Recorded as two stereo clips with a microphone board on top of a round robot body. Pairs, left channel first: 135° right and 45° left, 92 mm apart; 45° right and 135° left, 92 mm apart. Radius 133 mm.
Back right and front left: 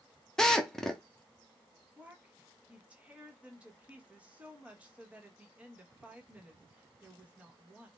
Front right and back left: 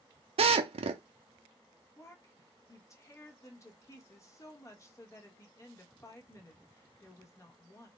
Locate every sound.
0.4 s a drill: 140° left, 0.5 m
2.0 s a woman speaking: 20° right, 1.4 m